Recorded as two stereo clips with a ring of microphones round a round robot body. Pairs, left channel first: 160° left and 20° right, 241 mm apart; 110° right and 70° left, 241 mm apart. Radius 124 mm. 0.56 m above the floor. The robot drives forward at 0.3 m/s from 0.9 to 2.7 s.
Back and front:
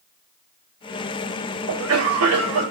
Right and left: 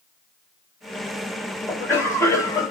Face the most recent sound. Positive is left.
turn(degrees=-35)